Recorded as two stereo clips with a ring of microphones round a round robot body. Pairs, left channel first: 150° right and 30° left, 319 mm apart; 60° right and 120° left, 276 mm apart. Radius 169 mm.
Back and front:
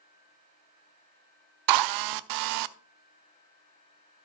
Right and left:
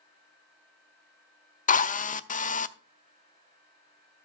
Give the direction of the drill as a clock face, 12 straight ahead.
12 o'clock.